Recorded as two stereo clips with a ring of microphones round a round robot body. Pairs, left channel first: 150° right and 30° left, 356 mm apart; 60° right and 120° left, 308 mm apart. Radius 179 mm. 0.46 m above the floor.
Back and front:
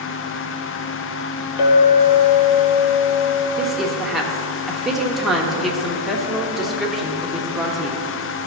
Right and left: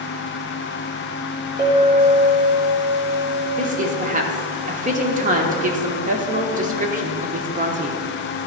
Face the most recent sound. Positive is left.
turn(degrees=120)